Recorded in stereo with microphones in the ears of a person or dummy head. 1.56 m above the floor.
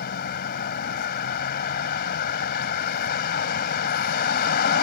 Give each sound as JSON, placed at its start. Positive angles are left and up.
{"t": 0.0, "sound": "a vehicle", "side_deg": 60}